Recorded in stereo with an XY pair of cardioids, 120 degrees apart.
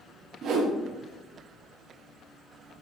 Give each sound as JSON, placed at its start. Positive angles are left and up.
{"t": 0.4, "sound": "a whoosh", "azimuth_deg": -60, "distance_m": 0.9}